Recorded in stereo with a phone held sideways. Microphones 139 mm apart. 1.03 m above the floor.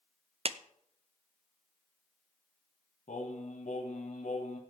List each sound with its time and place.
0.5 s a clap: 45° right (ahead or behind), 0.5 m
3.1 s singing: 65° left (ahead or behind), 2 m